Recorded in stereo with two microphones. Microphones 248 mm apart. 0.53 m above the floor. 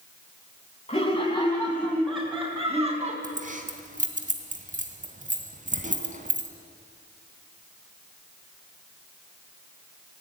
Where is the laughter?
25° left (ahead or behind), 4 m; by 3.1 s 25° right (ahead or behind), 4 m.